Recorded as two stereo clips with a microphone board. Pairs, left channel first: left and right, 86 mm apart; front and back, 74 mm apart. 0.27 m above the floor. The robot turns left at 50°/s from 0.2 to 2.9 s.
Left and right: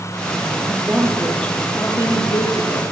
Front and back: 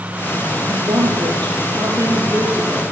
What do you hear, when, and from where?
0.7 s a woman speaking: 160° right, 6 m; by 2.8 s 95° left, 6 m